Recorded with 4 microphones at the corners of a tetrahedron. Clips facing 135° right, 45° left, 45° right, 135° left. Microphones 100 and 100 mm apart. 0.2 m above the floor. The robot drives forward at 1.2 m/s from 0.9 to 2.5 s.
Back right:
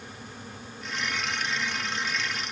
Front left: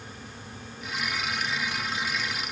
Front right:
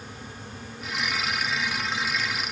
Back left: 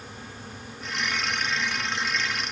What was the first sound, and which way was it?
Only background noise.